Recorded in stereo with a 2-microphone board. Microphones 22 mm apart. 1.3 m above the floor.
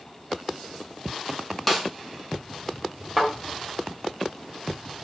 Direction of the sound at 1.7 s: Centre (ahead or behind).